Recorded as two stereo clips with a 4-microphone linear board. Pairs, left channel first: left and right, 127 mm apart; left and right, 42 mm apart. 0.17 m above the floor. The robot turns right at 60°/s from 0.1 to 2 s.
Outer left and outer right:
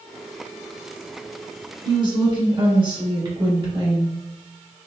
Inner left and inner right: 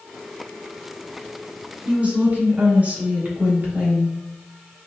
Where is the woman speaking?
40° right (ahead or behind), 1.5 m.